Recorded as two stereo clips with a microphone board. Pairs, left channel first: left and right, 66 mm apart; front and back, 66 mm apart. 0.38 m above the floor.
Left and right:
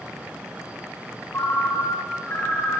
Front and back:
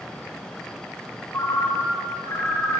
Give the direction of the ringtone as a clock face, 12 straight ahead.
11 o'clock.